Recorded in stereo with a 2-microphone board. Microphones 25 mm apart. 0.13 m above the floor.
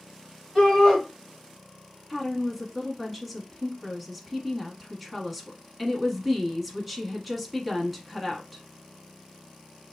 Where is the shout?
20° left (ahead or behind), 3 m.